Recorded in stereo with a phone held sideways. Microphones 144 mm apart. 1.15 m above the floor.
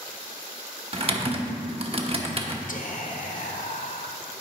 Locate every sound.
0.9 s typing on a keyboard: 40° right (ahead or behind), 0.9 m
2.7 s whispering: 65° left (ahead or behind), 1.1 m